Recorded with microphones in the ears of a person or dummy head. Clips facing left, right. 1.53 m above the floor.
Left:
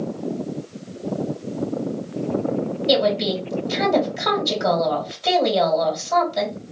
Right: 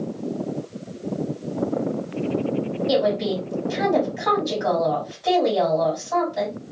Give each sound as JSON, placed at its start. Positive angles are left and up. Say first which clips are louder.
{"t": 2.9, "sound": "a woman speaking", "louder": "left 2 dB", "side_deg": 45, "distance_m": 2.5}